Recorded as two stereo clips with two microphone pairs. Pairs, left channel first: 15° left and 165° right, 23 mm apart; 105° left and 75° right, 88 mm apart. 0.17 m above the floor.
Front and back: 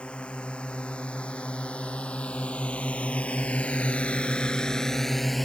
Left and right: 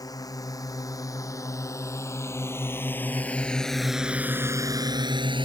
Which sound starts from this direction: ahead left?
A drone, at 0.0 s.